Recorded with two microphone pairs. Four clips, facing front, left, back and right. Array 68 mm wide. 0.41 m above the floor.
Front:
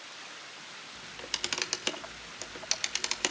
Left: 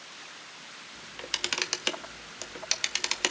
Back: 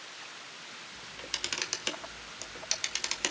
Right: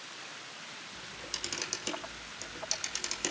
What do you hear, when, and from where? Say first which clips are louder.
0.9 s a camera shutter: left 8 dB, front 2 dB; 85° left, 1.6 m